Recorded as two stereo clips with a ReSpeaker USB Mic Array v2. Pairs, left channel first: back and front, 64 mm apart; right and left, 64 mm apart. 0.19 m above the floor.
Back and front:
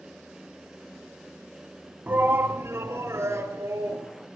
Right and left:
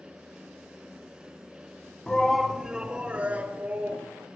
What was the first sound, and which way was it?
A shout, 20° right.